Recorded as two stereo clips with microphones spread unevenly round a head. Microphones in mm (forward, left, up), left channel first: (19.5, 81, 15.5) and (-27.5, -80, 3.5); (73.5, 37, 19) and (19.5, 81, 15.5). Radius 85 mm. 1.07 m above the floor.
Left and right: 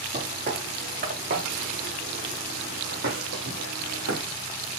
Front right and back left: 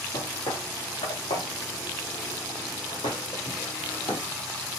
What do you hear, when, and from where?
0.1 s footsteps: 55° right, 5 m; by 4.2 s 100° right, 4 m